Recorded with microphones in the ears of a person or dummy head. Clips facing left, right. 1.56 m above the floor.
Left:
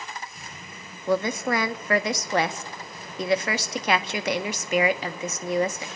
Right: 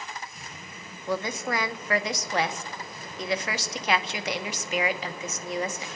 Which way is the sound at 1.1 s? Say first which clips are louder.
Left 5 dB; 55° left (ahead or behind).